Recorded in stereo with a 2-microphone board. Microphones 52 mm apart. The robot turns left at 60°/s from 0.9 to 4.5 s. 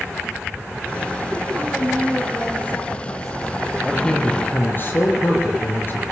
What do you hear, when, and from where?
1.5 s a woman speaking: 140° right, 9.5 m; by 3.5 s 100° left, 9.5 m
3.8 s a man speaking: straight behind, 6 m; by 6.1 s 140° left, 6 m